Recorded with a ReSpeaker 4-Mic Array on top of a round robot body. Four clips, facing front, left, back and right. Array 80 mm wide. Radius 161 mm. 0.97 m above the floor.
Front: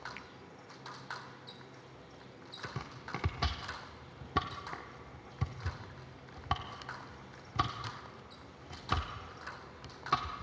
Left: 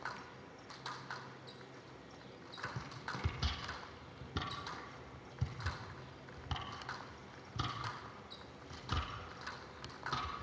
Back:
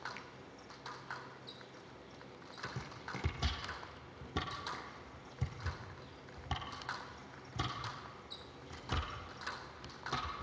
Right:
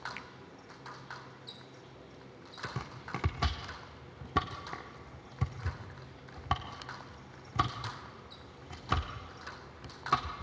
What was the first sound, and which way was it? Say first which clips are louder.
A finger snap: right 4 dB, front 1 dB; 80° right.